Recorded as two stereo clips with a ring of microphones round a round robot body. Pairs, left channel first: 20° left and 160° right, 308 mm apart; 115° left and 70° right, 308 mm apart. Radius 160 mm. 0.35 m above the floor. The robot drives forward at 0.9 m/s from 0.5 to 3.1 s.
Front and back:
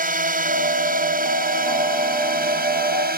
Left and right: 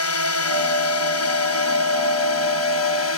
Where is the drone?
145° left.